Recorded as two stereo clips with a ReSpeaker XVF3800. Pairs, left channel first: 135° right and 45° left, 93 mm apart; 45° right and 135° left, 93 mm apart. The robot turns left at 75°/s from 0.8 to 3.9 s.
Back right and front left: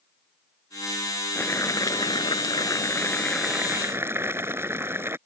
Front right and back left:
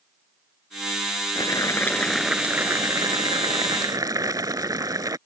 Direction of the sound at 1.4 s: 70° right.